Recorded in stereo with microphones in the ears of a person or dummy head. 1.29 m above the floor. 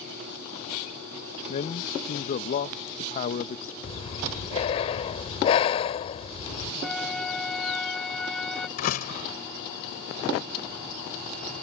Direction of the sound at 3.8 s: 40° left (ahead or behind).